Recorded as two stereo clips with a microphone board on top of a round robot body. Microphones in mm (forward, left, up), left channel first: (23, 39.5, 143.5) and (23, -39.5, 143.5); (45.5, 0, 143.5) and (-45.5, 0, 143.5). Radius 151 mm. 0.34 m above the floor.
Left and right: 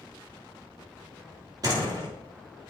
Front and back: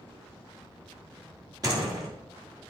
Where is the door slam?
130° right, 4 m.